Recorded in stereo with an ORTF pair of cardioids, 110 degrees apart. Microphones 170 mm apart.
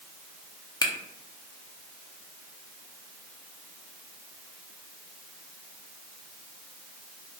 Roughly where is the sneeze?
No sneeze in this recording.